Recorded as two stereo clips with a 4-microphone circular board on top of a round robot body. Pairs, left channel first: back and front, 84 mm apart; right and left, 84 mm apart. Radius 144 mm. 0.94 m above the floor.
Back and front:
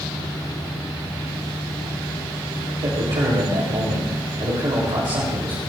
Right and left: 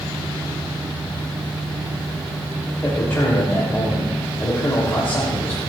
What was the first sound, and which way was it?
A man speaking, 25° right.